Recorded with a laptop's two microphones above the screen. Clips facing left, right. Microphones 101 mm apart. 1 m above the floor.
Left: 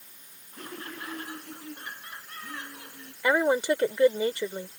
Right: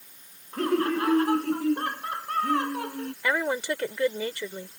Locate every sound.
0.5 s laughter: 80° right; by 3.1 s 65° right (ahead or behind)
3.2 s a woman speaking: 25° left (ahead or behind)